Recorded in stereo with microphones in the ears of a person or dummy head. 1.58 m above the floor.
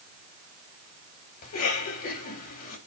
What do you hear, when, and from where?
1.4 s a cough: 50° left (ahead or behind), 3.5 m